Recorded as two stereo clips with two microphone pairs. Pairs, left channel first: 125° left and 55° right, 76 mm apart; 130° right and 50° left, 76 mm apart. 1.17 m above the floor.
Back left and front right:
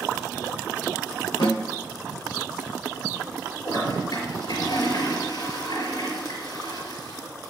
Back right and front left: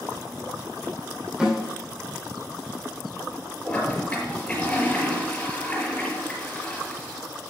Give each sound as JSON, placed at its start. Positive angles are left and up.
{"t": 1.4, "sound": "a snare drum", "azimuth_deg": 130, "distance_m": 2.5}
{"t": 3.6, "sound": "a toilet flushing", "azimuth_deg": 155, "distance_m": 5.5}